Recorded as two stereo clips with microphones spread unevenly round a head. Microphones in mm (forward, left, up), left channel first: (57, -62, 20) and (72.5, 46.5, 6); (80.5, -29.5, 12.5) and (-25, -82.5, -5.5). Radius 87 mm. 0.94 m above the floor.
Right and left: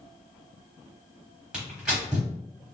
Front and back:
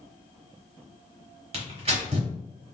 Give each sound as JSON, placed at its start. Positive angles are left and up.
{"t": 1.5, "sound": "tearing paper", "azimuth_deg": 175, "distance_m": 0.9}